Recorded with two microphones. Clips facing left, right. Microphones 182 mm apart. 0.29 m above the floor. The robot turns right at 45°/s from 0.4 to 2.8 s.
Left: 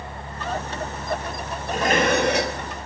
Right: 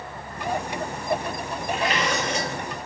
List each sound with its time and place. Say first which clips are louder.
1.7 s dishes clattering: left 6 dB; 40° left, 4 m; by 2.6 s 80° left, 4 m